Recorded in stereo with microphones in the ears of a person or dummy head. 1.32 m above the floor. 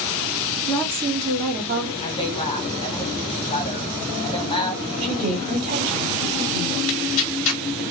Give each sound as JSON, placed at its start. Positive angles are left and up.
{"t": 0.7, "sound": "a woman speaking", "side_deg": 15, "distance_m": 0.5}
{"t": 2.0, "sound": "a woman speaking", "side_deg": 35, "distance_m": 0.8}
{"t": 5.0, "sound": "a woman speaking", "side_deg": -45, "distance_m": 1.6}
{"t": 6.9, "sound": "tearing paper", "side_deg": 70, "distance_m": 0.5}